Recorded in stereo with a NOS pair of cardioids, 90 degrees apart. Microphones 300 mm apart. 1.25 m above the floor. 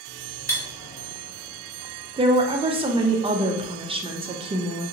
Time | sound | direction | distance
0.5 | cutlery clinking | 10° right | 1.3 m
2.2 | a woman speaking | 20° right | 0.6 m